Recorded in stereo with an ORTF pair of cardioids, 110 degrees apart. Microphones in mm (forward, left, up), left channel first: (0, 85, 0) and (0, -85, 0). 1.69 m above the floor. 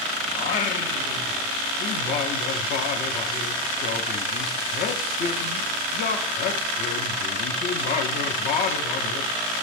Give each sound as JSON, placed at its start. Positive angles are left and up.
{"t": 0.3, "sound": "singing", "azimuth_deg": 60, "distance_m": 0.6}